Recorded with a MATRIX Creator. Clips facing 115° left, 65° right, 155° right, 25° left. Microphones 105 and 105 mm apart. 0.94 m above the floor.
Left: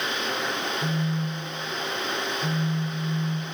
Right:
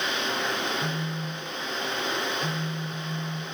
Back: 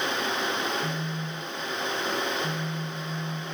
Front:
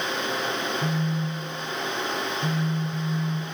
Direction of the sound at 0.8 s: 30° left.